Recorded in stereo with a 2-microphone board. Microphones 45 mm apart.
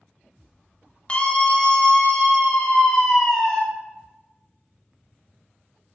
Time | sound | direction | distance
1.1 | a scream | 25° left (ahead or behind) | 1.7 m